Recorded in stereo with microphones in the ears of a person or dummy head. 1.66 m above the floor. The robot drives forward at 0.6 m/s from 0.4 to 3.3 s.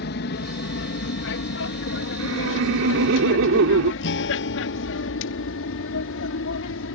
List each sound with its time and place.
0.0 s an aircraft: 60° left (ahead or behind); by 7.0 s 75° left (ahead or behind)
2.2 s laughter: 75° right (ahead or behind); by 3.9 s 70° right (ahead or behind)
4.0 s a guitar: 70° left (ahead or behind)